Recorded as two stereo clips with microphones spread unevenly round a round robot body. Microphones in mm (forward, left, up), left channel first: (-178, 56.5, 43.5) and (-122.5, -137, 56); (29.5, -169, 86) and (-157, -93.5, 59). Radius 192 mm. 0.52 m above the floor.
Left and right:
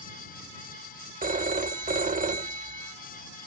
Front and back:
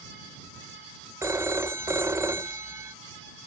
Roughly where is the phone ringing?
Behind right.